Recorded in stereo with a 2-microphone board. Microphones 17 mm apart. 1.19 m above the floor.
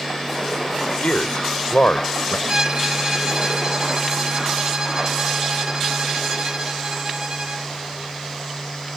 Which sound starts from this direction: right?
A violin, at 2.5 s.